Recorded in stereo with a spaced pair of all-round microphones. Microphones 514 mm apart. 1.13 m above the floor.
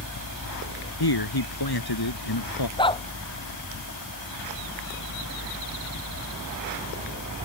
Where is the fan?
40° left (ahead or behind).